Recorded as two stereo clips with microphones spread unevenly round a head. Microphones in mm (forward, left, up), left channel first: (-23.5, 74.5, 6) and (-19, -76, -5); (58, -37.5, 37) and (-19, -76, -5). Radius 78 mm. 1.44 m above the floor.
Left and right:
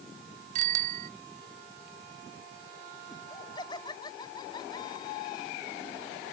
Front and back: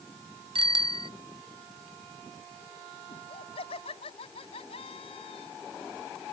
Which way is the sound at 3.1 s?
25° left.